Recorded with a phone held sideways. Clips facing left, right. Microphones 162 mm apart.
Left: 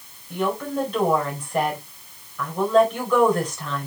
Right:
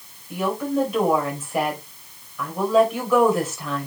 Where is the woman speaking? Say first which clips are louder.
Right 2 dB; 5° right (ahead or behind), 4.5 m.